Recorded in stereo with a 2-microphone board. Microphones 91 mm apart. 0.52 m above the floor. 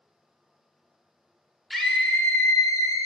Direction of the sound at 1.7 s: Centre (ahead or behind).